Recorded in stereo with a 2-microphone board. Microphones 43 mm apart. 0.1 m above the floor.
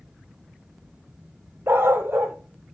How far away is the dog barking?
About 0.8 m.